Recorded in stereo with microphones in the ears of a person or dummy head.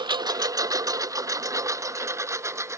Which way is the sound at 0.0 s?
25° right (ahead or behind).